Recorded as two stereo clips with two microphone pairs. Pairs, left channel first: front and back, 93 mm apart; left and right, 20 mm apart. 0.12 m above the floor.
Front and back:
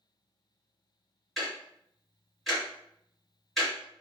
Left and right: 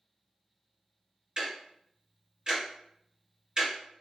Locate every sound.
1.4 s ticking: 85° right, 1.9 m